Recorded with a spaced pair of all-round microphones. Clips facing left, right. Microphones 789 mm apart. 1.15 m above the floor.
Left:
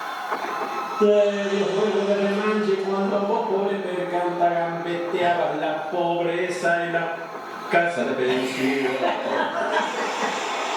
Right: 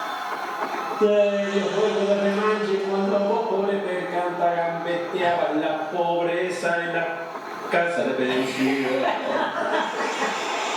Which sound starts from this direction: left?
Laughter, at 1.0 s.